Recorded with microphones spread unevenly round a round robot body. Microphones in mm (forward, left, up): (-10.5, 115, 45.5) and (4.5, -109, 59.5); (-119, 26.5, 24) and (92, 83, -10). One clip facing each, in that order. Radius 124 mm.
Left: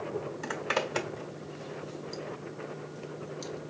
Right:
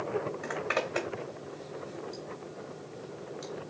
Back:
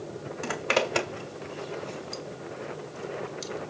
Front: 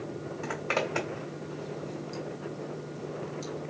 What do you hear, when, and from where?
0.4 s a zipper: 150° left, 1.6 m